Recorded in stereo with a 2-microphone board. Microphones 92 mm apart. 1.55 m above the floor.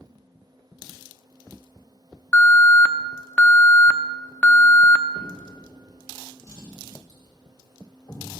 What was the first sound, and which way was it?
An alarm, 15° left (ahead or behind).